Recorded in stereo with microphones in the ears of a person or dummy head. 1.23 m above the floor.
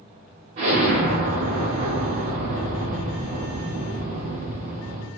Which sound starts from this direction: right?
An explosion, at 0.6 s.